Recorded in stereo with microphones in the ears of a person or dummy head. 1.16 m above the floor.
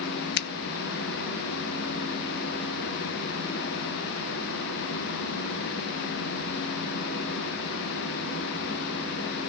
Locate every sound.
0.4 s a finger snap: 50° left (ahead or behind), 0.6 m